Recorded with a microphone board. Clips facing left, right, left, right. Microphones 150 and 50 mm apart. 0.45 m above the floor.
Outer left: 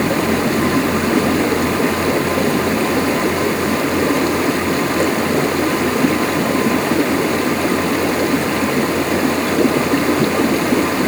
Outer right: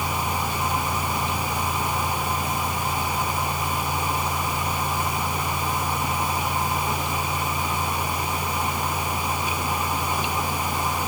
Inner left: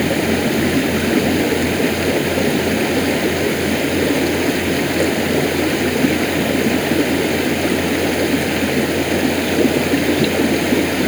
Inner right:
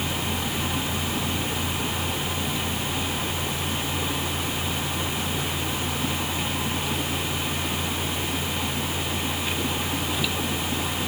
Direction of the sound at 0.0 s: 65° left (ahead or behind).